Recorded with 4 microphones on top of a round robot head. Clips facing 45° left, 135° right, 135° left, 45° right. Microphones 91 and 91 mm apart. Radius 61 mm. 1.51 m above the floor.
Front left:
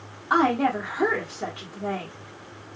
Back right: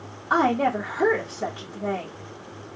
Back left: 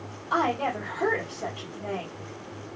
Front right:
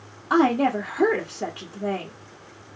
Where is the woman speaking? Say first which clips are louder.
Even, front right 6 dB; 50° right, 1.3 m.